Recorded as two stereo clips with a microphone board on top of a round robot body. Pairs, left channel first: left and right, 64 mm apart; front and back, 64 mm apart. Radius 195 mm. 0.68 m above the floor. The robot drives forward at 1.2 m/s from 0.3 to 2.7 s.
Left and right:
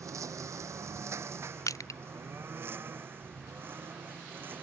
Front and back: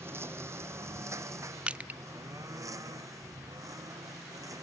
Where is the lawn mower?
130° right; by 4.6 s 150° right.